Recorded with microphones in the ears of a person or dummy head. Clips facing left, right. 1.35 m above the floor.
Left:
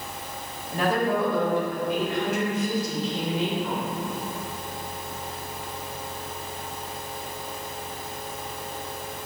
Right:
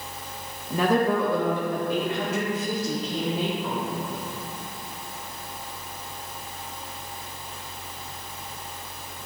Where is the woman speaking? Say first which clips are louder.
Right 2 dB; 75° right (ahead or behind), 1.2 m; by 3.8 s 85° right, 3.5 m.